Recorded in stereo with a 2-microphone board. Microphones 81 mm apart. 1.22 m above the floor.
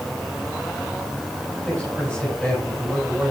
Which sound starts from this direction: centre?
A man speaking, at 1.6 s.